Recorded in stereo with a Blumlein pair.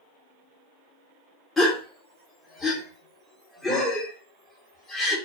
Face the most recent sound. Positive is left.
turn(degrees=10)